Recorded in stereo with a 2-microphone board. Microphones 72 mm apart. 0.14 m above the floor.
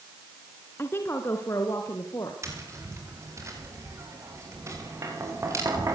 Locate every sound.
0.8 s a woman speaking: 30° left (ahead or behind), 1.6 m; by 2.3 s 45° left (ahead or behind), 2.5 m
2.4 s tapping: 40° right (ahead or behind), 7 m